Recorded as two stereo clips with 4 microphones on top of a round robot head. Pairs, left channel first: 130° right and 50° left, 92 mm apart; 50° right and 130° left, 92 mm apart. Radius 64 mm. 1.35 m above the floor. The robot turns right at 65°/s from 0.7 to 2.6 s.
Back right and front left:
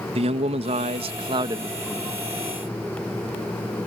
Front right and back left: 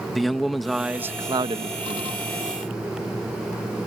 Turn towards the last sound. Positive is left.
turn(degrees=165)